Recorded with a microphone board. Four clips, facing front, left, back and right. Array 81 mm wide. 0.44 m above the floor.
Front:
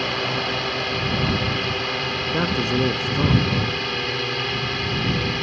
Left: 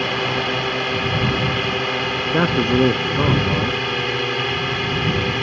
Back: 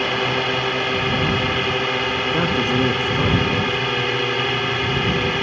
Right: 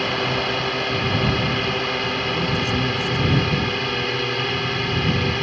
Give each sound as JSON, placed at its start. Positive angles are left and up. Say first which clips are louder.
{"t": 0.0, "sound": "a drone", "louder": "left 1 dB, back 4 dB", "azimuth_deg": 160}
{"t": 2.3, "sound": "a man speaking", "louder": "left 10 dB, back 1 dB", "azimuth_deg": 90}